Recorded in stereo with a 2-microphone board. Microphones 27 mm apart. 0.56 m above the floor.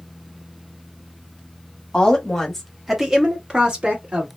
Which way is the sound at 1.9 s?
30° left (ahead or behind).